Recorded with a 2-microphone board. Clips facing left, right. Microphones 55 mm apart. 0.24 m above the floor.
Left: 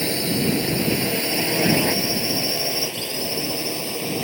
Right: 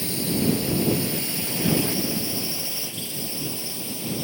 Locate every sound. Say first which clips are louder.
0.0 s a drone: left 2 dB; 70° left (ahead or behind); by 4.2 s 75° left (ahead or behind)